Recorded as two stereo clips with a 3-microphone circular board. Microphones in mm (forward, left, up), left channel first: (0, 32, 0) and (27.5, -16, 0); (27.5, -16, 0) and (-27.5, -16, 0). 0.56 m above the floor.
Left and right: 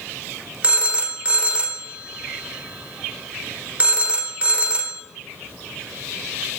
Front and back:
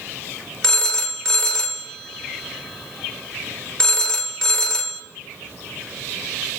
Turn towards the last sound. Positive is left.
turn(degrees=-60)